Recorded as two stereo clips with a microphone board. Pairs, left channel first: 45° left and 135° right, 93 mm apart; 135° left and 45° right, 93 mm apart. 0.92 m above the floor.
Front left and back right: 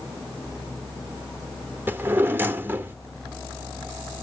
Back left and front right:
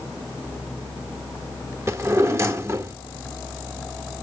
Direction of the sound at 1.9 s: 85° right.